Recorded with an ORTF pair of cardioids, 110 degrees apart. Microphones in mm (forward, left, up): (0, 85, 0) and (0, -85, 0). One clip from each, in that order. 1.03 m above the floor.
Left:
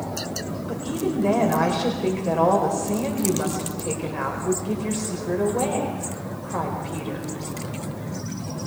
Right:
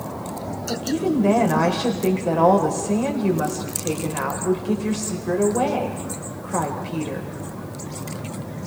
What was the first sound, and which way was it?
A woman speaking, 15° right.